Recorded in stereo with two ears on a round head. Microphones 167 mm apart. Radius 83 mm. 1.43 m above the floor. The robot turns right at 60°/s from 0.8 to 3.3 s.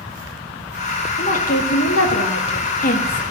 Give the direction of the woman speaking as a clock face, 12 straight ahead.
11 o'clock.